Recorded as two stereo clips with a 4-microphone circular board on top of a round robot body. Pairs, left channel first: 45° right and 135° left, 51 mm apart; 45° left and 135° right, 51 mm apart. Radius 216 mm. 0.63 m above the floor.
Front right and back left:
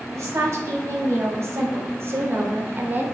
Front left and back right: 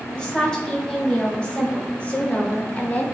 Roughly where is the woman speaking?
Behind left.